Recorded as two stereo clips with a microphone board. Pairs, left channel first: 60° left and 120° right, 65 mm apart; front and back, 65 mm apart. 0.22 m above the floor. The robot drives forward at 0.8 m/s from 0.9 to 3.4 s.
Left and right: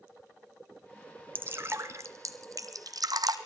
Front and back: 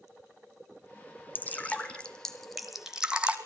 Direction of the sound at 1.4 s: 60° right.